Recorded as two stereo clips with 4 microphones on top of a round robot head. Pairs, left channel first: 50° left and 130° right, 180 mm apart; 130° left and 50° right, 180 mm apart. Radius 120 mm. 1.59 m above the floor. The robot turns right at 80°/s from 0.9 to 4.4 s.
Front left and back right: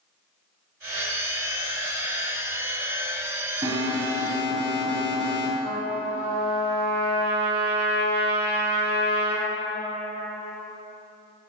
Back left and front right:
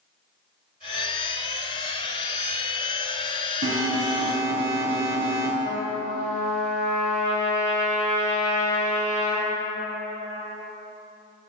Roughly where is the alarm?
Ahead right.